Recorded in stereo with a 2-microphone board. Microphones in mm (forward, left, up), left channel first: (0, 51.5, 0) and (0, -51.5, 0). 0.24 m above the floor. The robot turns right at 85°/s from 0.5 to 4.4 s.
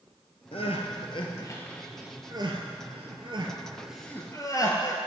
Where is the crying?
65° left (ahead or behind), 1.2 m; by 5.0 s 35° left (ahead or behind), 1.2 m.